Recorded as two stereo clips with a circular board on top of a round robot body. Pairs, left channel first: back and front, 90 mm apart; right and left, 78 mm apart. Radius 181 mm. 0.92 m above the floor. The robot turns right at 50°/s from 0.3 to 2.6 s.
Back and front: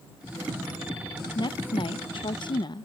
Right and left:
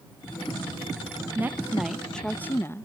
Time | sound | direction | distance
1.4 | a woman speaking | 150° left | ?